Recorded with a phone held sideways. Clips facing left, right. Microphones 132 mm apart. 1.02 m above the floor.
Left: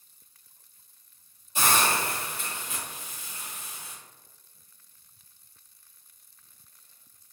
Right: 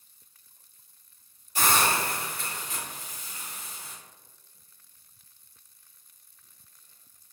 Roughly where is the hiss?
Left.